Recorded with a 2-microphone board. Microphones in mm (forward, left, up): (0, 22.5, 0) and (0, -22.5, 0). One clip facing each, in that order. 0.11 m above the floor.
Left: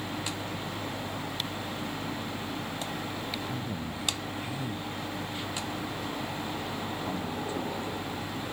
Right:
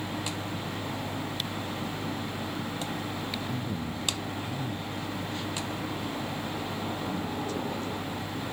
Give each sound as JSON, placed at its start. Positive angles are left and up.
{"t": 3.5, "sound": "a man speaking", "side_deg": 5}